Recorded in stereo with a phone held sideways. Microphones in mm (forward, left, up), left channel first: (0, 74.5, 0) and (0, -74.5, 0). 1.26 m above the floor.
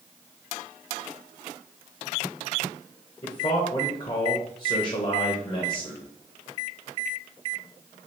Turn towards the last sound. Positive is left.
turn(degrees=40)  # may be behind; listen again after turning